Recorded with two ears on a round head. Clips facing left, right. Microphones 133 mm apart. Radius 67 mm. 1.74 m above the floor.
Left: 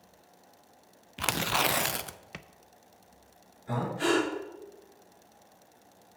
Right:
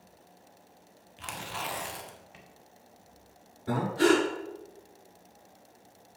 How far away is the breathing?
About 5 m.